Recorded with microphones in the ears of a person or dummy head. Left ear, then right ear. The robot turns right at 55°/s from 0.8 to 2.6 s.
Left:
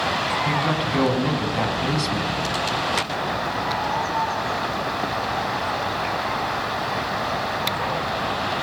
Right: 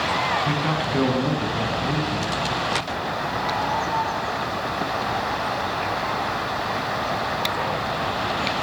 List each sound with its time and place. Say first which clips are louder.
0.5 s a man speaking: left 1 dB; 5° right, 8.5 m; by 2.4 s 80° left, 8.5 m